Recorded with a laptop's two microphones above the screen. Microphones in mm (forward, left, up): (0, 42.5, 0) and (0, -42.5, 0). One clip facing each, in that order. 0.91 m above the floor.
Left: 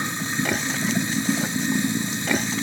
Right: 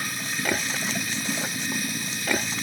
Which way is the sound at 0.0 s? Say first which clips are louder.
Left 4 dB; 25° left (ahead or behind).